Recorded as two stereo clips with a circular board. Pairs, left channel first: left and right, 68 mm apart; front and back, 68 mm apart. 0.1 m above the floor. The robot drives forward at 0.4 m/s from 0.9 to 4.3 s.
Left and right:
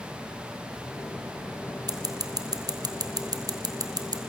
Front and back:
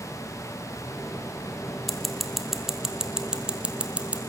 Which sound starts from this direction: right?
Scissors, at 1.9 s.